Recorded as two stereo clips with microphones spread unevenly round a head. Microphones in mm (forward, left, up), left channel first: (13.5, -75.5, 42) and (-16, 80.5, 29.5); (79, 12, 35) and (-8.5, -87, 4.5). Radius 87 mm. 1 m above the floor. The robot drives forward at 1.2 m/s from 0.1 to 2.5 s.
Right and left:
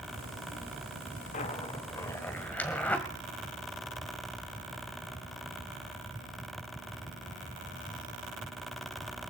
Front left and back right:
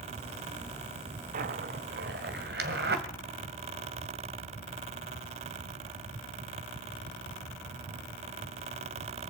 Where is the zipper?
115° right, 0.9 m; by 3.0 s 160° right, 1.9 m.